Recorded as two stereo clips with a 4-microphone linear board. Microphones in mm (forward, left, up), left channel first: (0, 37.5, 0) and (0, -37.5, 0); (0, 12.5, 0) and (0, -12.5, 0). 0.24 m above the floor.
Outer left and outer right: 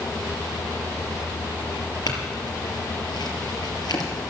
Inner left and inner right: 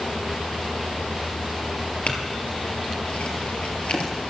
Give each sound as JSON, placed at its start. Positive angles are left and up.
{"t": 2.1, "sound": "a clink", "side_deg": 65, "distance_m": 3.5}